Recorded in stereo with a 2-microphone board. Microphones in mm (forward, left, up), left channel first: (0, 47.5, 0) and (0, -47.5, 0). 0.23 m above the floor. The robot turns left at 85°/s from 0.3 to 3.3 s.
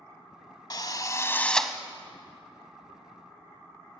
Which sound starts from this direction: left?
A drill, at 0.7 s.